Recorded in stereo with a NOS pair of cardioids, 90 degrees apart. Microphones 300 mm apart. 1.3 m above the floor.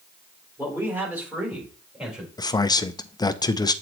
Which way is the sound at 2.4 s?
15° left.